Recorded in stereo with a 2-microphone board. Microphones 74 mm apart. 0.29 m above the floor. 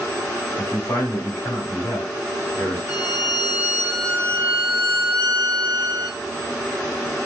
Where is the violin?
50° right (ahead or behind), 1.8 m.